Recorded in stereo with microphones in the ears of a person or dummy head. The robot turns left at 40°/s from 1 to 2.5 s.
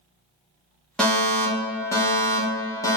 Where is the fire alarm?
Centre (ahead or behind), 0.6 m; by 3.0 s 15° left (ahead or behind), 0.6 m.